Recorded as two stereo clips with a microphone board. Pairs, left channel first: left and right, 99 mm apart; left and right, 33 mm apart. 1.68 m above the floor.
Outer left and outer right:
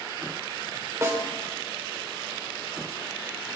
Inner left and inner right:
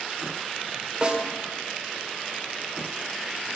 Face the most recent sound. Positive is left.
turn(degrees=-30)  # may be behind; listen again after turning